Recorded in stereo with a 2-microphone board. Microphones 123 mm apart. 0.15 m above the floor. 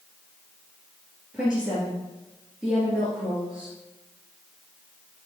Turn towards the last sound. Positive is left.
turn(degrees=-5)  # may be behind; listen again after turning